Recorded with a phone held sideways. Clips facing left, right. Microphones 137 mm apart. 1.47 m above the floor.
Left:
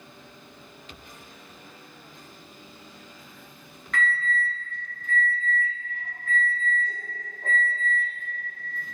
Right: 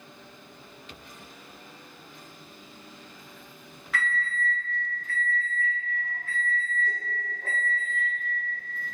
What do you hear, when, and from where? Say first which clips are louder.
3.9 s an alarm: left 3 dB; 5° right (ahead or behind), 1.1 m